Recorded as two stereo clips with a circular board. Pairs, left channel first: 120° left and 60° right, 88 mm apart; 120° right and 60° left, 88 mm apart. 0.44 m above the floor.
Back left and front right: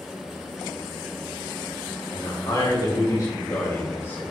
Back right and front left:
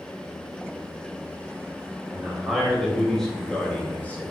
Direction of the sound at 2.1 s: 145° left.